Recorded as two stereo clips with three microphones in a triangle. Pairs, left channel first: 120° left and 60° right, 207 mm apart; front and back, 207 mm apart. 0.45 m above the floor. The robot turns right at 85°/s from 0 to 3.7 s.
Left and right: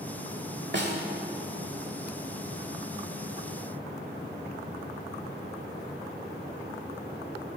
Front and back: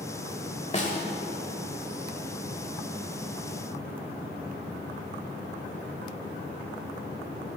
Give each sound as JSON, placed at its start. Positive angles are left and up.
{"t": 0.7, "sound": "a snare drum", "azimuth_deg": -50, "distance_m": 1.5}